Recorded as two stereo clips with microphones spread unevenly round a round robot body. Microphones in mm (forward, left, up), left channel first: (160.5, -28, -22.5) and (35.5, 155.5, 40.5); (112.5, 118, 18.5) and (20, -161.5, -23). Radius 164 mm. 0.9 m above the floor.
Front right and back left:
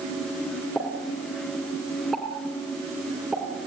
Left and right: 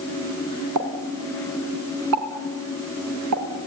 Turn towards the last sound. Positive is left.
turn(degrees=-150)